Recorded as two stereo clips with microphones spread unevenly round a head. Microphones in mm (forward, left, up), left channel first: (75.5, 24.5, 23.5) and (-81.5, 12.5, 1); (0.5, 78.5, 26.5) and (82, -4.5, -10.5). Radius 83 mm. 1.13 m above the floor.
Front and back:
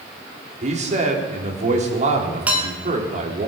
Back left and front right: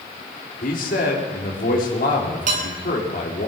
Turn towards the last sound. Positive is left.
turn(degrees=-90)